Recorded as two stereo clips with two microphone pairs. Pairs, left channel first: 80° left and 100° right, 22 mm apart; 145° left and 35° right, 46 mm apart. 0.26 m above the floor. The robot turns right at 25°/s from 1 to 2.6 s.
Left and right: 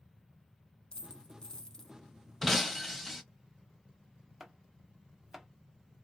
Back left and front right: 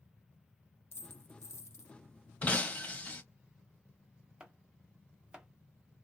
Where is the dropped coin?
120° left, 0.6 m; by 1.9 s 145° left, 0.6 m.